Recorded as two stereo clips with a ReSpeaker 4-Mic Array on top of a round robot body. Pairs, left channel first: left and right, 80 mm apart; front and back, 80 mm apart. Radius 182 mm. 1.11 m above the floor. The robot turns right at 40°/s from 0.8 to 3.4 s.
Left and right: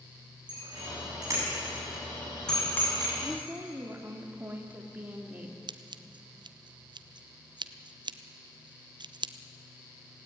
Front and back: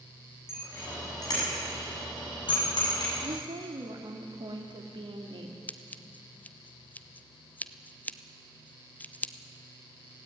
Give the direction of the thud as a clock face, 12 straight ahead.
No thud in this recording.